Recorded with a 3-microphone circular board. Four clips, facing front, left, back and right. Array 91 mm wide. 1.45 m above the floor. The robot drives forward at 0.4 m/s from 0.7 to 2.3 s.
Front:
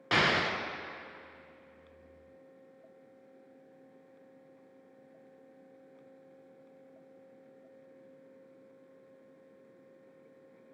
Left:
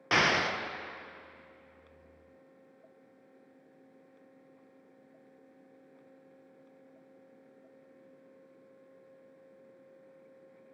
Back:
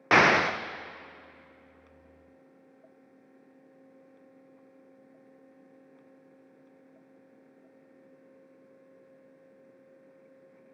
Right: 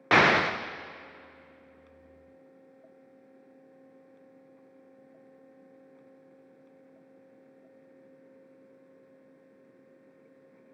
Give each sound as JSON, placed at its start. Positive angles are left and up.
{"t": 0.1, "sound": "an explosion", "azimuth_deg": -145, "distance_m": 0.5}